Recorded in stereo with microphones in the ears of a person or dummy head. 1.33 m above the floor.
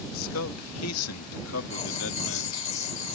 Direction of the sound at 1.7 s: 35° left (ahead or behind).